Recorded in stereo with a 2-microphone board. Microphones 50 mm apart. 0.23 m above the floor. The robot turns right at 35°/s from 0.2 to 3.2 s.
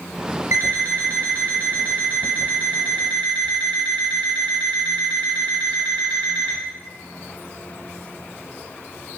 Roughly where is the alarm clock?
Right.